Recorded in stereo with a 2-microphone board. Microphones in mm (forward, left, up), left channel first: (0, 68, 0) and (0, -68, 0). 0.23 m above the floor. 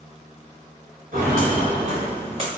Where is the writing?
I don't hear writing.